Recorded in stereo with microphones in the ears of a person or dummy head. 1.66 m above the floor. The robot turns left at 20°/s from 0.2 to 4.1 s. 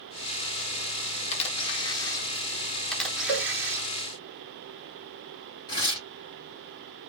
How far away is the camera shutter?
About 0.7 m.